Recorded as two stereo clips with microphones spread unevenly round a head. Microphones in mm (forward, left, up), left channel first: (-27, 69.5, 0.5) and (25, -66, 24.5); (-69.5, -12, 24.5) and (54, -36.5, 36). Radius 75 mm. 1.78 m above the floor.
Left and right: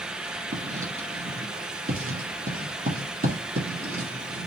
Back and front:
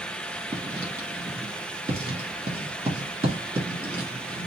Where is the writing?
70° right, 1.8 m.